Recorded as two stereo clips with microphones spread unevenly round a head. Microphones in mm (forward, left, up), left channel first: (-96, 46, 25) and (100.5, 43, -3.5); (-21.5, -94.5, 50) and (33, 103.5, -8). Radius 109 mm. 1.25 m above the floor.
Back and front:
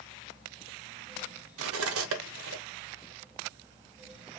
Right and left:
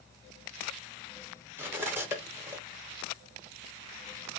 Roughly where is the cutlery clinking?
Ahead.